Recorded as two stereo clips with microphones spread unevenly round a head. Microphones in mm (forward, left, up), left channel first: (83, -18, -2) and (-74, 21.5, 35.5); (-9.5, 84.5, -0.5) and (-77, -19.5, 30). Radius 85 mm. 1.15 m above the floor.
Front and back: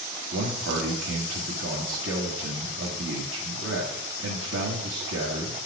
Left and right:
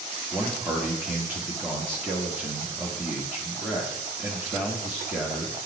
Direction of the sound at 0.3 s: 160° left.